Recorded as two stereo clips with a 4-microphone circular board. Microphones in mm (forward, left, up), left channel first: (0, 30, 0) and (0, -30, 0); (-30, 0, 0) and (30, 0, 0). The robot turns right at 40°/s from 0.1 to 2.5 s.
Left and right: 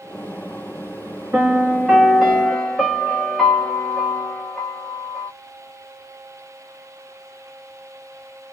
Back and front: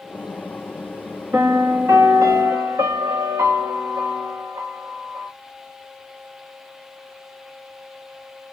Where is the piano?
40° right, 1.3 m; by 5.3 s 5° left, 1.3 m.